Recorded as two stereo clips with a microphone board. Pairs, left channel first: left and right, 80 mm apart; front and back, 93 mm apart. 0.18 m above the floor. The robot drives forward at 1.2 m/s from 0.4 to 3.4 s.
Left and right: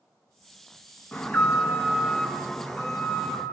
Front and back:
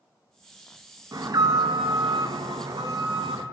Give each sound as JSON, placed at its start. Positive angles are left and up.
{"t": 1.1, "sound": "an alarm", "azimuth_deg": 145, "distance_m": 2.0}